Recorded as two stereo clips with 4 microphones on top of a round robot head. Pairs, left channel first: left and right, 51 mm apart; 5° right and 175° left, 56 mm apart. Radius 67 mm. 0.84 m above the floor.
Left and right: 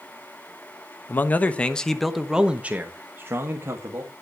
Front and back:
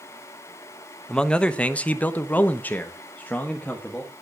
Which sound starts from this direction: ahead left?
A man speaking, at 1.1 s.